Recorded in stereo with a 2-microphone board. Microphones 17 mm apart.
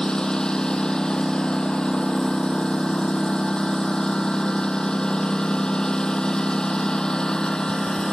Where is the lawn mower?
45° left (ahead or behind).